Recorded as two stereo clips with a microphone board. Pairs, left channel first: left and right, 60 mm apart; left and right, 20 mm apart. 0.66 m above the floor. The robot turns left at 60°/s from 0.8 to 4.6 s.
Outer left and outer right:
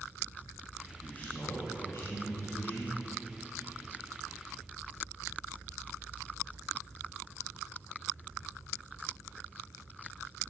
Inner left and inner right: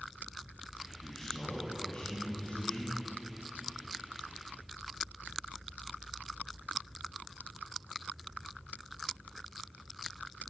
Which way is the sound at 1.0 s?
165° left.